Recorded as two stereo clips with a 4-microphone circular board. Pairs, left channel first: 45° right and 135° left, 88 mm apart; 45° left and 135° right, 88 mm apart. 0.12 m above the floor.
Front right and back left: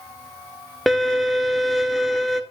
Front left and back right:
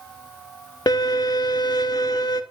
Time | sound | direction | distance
0.9 | a violin | 45° left | 0.5 m